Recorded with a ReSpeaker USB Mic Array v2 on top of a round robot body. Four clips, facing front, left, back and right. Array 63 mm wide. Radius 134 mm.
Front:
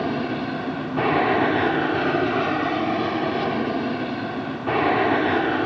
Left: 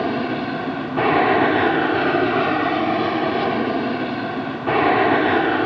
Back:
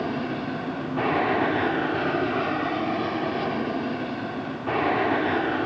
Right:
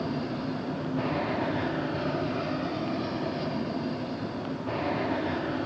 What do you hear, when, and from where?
0.0 s an aircraft: 80° left